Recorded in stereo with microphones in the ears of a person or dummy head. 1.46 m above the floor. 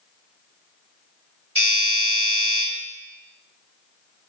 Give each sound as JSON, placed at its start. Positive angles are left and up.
{"t": 1.6, "sound": "a doorbell", "side_deg": -25, "distance_m": 1.7}